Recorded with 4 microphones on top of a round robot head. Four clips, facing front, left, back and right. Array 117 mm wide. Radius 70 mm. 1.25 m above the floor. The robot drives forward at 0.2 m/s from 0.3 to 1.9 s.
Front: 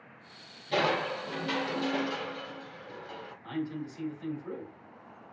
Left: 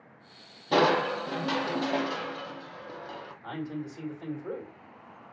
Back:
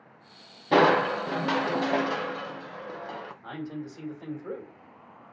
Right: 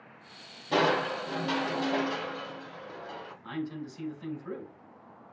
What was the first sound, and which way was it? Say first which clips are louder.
Crushing: left 3 dB, back 8 dB; 170° left.